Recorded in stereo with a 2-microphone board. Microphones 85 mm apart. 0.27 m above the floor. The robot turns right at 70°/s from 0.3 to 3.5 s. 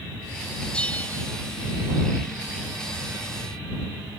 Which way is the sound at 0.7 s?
25° left.